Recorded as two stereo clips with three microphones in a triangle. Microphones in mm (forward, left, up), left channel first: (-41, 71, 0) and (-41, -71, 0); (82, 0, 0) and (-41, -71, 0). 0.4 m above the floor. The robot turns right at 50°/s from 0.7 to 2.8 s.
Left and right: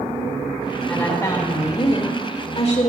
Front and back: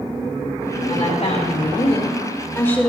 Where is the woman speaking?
15° left, 1.6 m; by 2.9 s 110° left, 1.6 m.